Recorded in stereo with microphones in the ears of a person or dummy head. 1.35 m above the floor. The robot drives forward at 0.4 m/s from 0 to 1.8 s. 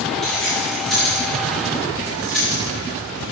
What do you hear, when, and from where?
0.2 s keys jangling: centre (ahead or behind), 1.8 m